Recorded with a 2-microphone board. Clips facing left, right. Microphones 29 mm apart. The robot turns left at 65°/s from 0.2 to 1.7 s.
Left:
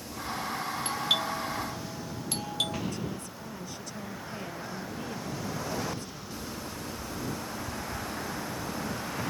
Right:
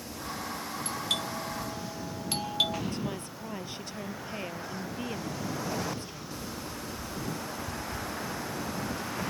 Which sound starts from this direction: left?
A doorbell, at 0.8 s.